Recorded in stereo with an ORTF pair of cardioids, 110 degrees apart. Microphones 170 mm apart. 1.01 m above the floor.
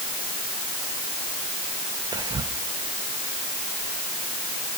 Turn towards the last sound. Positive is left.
turn(degrees=-25)